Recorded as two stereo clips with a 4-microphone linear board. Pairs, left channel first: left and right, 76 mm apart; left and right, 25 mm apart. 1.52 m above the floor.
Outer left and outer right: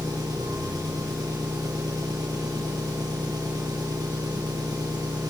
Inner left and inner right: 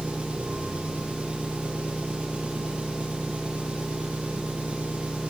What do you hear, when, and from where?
0.0 s an engine running: 50° right (ahead or behind), 10 m